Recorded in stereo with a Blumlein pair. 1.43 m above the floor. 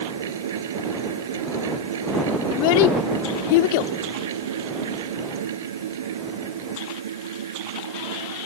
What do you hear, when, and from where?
0.0 s a fan: 60° right
2.5 s a child speaking: 50° left